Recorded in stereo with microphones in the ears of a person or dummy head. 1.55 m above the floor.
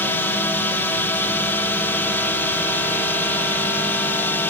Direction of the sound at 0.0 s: 10° left (ahead or behind).